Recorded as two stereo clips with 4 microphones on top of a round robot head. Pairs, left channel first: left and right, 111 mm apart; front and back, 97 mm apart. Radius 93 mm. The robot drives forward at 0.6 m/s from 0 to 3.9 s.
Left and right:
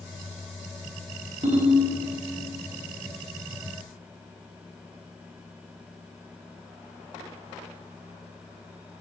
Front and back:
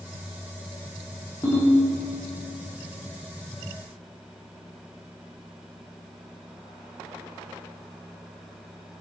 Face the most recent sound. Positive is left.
turn(degrees=-125)